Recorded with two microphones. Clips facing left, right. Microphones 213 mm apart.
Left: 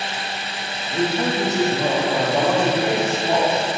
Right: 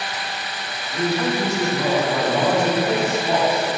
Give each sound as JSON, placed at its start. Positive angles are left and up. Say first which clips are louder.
{"t": 0.9, "sound": "a man speaking", "louder": "even", "side_deg": 30, "distance_m": 1.3}